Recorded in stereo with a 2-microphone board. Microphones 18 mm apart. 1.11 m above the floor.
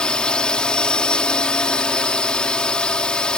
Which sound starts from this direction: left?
A drone, at 0.0 s.